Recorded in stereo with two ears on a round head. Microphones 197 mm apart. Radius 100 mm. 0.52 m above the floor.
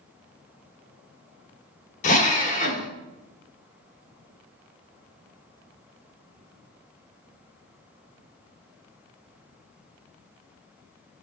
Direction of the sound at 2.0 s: 35° left (ahead or behind).